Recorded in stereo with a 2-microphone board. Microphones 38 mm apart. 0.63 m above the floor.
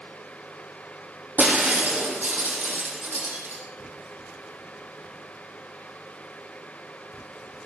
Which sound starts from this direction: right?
Breaking glass, at 1.4 s.